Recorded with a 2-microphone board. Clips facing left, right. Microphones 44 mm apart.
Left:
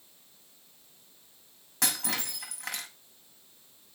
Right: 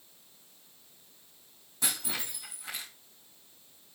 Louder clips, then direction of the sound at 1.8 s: Left 3 dB; 85° left.